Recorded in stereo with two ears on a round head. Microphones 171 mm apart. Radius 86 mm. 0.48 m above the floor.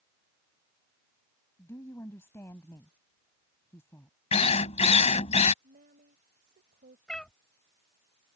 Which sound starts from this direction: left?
A drill, at 4.3 s.